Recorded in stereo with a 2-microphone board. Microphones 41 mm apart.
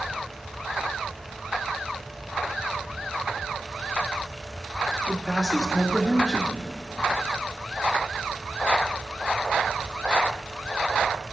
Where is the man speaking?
10° right (ahead or behind), 0.9 m.